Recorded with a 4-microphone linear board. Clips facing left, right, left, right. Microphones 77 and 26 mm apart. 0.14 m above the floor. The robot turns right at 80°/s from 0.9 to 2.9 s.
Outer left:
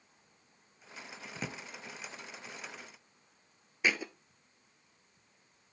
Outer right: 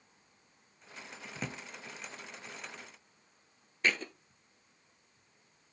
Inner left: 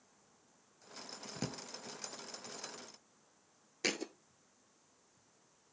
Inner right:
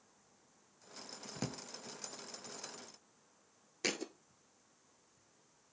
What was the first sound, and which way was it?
A drawer, 5° left (ahead or behind).